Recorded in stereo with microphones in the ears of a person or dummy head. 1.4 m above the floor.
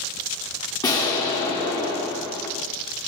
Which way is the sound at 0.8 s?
20° left (ahead or behind).